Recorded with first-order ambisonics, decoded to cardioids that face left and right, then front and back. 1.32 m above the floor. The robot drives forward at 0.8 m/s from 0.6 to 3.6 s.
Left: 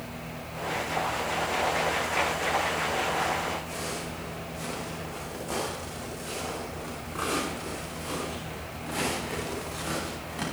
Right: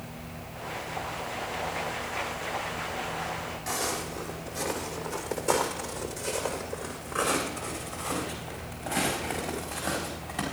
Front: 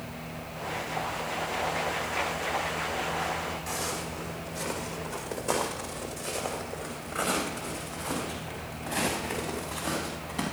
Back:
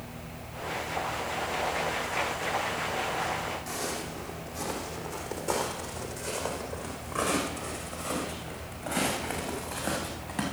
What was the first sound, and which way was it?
Footsteps, 105° right.